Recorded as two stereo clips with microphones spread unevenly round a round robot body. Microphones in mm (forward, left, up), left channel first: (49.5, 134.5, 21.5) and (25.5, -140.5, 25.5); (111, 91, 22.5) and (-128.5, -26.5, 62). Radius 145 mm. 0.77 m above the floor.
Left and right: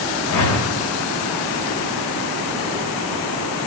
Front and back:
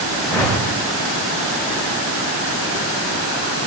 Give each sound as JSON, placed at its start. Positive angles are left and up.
{"t": 0.3, "sound": "a whoosh", "azimuth_deg": 120, "distance_m": 2.5}